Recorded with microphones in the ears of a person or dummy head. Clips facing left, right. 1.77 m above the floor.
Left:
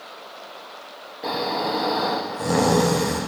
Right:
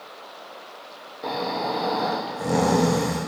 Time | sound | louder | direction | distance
1.2 | snoring | left 2 dB | 5° left (ahead or behind) | 0.9 m